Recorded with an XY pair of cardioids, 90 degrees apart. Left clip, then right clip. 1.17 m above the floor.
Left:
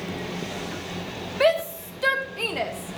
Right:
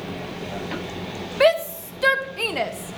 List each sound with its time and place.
1.4 s a shout: 30° right, 1.5 m